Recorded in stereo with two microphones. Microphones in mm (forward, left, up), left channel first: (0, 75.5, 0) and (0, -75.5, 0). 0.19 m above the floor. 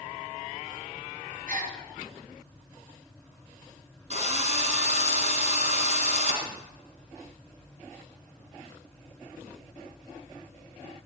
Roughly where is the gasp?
Right.